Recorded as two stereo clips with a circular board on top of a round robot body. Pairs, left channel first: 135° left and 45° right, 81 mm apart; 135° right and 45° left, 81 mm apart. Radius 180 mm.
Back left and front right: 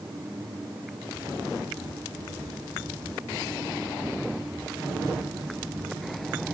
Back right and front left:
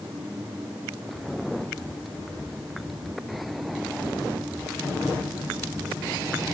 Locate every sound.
Only background noise.